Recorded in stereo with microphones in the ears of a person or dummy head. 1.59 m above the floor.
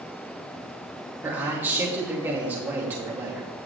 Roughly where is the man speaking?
Centre.